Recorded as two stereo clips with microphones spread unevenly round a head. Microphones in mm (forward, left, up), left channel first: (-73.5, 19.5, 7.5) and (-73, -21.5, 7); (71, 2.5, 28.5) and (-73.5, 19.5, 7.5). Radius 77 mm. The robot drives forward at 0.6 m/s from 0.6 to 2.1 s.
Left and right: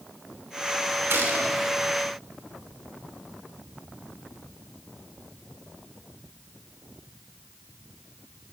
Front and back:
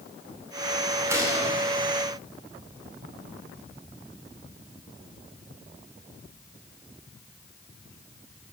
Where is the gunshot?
110° right, 2.5 m; by 1.6 s 120° right, 2.5 m.